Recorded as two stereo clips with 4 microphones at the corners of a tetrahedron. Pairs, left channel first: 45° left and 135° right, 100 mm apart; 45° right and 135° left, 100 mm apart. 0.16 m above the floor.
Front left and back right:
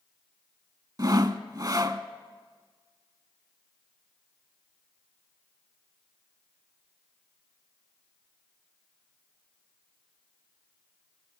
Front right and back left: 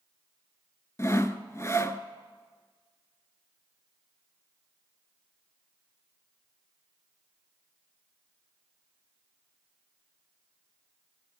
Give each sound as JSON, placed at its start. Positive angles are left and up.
{"t": 1.0, "sound": "sawing", "azimuth_deg": -95, "distance_m": 0.6}